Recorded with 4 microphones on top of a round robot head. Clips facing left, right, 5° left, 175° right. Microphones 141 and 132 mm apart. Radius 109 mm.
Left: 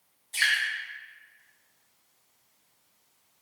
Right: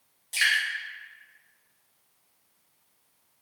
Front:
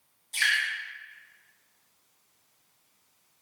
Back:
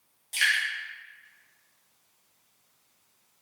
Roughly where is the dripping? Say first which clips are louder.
Right 1 dB, even; behind right.